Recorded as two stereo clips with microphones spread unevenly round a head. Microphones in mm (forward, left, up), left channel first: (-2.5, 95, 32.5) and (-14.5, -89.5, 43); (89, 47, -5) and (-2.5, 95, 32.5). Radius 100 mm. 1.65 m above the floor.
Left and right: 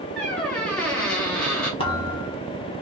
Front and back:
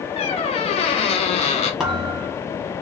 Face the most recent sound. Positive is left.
turn(degrees=125)